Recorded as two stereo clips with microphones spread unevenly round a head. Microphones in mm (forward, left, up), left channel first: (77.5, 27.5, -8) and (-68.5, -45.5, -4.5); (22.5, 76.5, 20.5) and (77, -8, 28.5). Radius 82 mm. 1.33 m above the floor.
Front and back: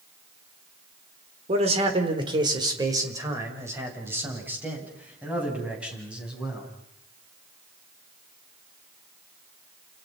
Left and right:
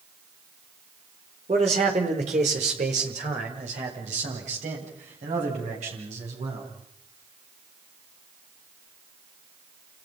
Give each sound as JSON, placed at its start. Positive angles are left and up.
{"t": 1.5, "sound": "a man speaking", "azimuth_deg": -100, "distance_m": 4.0}